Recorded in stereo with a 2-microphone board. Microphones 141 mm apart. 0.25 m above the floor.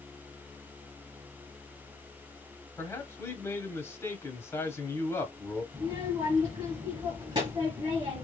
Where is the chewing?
I don't hear chewing.